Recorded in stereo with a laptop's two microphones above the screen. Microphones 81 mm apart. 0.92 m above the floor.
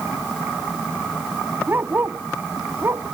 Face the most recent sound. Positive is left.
turn(degrees=-40)  # may be behind; listen again after turning